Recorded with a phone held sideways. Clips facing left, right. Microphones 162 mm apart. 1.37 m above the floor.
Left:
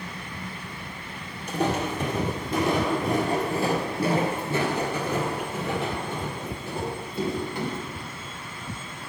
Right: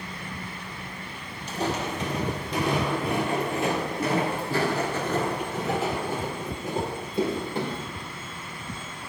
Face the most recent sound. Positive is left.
turn(degrees=-30)  # may be behind; listen again after turning